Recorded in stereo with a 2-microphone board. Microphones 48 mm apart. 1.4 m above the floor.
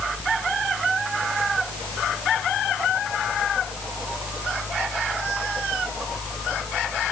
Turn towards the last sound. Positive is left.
No sound to turn to.